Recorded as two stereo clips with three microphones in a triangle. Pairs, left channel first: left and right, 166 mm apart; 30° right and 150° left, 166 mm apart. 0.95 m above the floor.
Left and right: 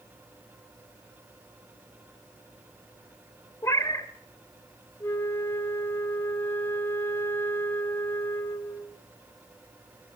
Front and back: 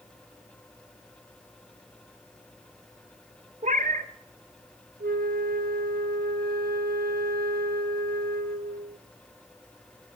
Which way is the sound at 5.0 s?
165° left.